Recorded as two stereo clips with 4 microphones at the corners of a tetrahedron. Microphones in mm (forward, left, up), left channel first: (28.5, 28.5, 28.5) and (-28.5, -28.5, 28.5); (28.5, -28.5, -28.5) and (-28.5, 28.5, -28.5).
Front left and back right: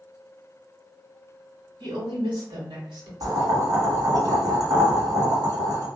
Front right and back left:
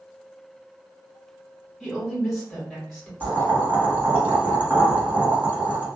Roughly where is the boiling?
Behind.